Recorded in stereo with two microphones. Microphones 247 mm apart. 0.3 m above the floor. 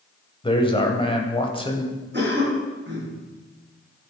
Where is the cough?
45° right (ahead or behind), 4 m.